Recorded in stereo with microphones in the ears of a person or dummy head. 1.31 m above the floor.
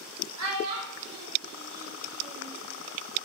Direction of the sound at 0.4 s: 85° right.